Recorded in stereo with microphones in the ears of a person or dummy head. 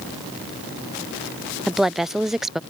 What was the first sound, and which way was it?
A woman speaking, centre (ahead or behind).